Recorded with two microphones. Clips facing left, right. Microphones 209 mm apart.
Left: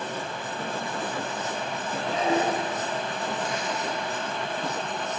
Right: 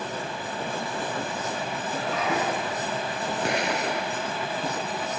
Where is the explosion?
65° right (ahead or behind).